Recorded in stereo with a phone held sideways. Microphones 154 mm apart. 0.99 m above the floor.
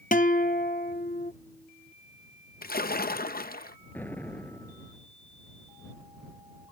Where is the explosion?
10° left (ahead or behind).